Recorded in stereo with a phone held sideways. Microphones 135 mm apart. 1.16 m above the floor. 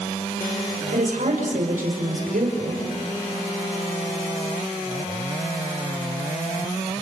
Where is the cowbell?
I don't hear a cowbell.